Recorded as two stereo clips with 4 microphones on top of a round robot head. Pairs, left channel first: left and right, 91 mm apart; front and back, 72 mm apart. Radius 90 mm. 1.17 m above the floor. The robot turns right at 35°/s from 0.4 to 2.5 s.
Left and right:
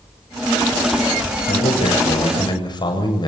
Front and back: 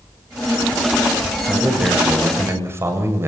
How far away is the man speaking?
About 7.5 m.